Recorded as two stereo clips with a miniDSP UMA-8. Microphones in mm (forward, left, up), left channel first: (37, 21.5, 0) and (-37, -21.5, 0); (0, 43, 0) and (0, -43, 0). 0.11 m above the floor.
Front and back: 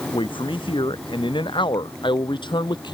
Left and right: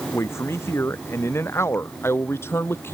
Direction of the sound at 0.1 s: 30° left.